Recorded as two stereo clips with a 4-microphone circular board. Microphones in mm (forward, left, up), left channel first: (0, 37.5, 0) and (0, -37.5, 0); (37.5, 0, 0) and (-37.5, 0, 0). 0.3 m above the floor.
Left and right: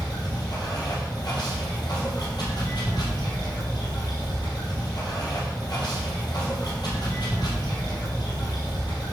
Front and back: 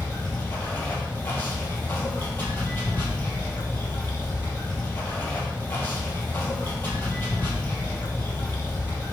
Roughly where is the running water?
Ahead left.